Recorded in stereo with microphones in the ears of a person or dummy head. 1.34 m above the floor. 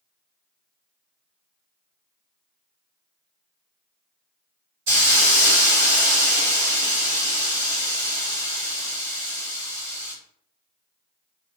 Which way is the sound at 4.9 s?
60° right (ahead or behind).